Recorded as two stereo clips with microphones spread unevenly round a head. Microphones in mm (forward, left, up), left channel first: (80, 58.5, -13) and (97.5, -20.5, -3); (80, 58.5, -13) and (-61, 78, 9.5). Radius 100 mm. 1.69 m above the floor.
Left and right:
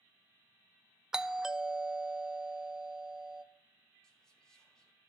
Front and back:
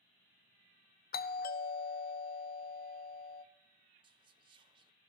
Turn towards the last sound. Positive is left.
turn(degrees=-170)